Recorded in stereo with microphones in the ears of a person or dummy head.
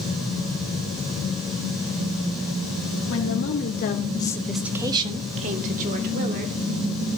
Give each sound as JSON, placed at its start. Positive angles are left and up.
{"t": 3.1, "sound": "a woman speaking", "side_deg": 75, "distance_m": 2.0}